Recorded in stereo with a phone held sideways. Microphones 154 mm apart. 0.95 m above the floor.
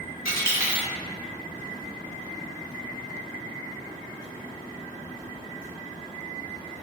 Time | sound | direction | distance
0.2 | a dropped coin | 20° right (ahead or behind) | 1.0 m